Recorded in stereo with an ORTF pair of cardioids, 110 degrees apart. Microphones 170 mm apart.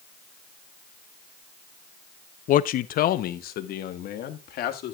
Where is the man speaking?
55° left, 0.6 m; by 5.0 s 65° left, 1.9 m.